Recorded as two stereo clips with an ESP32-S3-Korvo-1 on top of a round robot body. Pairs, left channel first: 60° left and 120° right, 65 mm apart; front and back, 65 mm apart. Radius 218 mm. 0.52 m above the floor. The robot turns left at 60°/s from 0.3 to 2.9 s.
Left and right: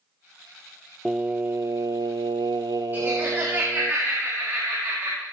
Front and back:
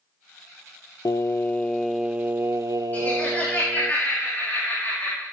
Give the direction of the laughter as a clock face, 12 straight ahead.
2 o'clock.